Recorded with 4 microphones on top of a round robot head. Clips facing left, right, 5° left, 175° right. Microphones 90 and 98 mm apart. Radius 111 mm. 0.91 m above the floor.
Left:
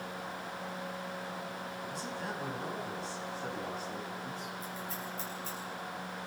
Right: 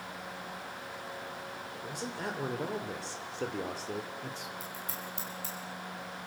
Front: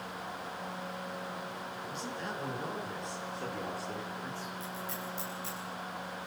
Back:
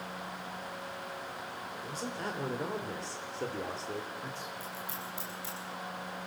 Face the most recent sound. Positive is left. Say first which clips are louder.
# left 1 dB, front 1 dB
turn(degrees=-95)